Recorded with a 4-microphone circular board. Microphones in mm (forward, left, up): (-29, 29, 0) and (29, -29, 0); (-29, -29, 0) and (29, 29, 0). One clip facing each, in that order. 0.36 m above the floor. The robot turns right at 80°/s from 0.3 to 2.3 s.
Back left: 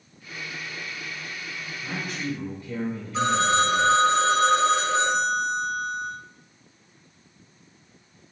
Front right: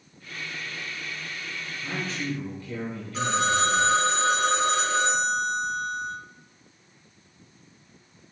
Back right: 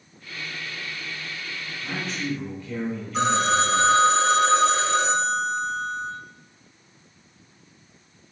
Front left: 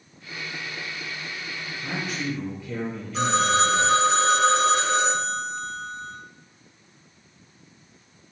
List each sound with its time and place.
1.8 s a man speaking: 75° left, 0.8 m; by 3.9 s 115° left, 0.8 m
3.1 s a phone ringing: 175° right, 1.2 m